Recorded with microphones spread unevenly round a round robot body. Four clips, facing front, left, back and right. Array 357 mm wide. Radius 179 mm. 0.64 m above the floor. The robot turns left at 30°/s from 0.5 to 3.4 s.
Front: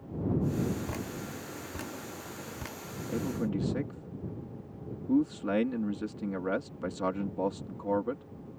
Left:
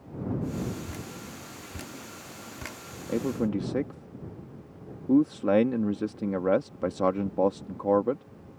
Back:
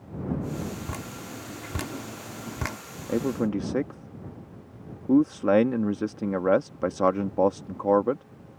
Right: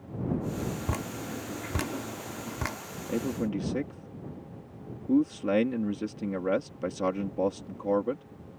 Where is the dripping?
105° right; by 2.8 s 165° right.